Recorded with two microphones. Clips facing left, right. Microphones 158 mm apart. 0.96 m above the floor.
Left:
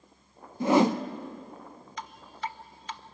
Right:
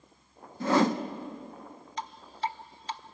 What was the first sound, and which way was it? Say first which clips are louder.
A whoosh: left 3 dB; 15° left (ahead or behind).